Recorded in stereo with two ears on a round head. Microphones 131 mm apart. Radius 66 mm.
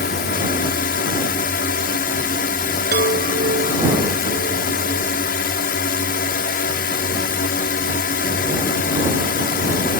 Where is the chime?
70° right (ahead or behind).